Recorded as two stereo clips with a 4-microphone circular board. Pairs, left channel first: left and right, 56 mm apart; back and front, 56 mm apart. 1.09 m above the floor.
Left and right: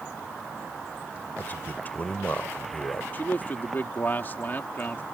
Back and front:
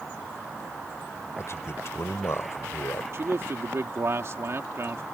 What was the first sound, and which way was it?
A man speaking, 145° left.